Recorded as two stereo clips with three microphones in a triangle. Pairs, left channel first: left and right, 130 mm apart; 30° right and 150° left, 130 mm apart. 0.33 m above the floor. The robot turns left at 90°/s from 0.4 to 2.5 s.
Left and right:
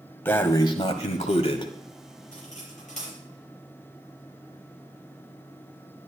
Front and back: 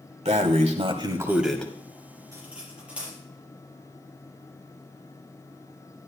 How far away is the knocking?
No knocking in this recording.